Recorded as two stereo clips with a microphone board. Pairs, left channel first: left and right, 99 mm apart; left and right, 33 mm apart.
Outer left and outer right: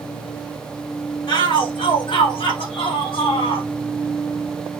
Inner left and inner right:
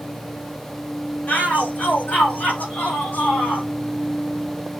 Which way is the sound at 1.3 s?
55° left (ahead or behind).